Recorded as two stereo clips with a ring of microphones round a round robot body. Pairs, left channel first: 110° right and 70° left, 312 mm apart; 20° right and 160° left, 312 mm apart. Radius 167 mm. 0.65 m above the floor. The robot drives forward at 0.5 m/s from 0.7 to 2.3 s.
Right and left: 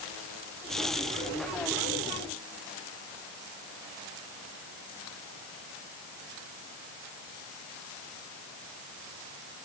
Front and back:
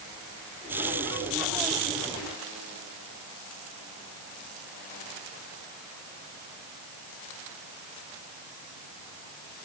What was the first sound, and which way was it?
Only background noise.